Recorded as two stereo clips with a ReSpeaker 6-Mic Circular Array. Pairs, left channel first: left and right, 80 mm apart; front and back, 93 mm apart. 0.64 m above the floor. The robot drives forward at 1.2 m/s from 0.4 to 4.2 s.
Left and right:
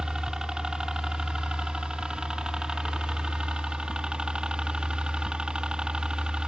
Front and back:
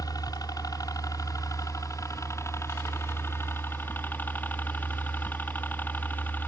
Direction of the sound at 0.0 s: 10° right.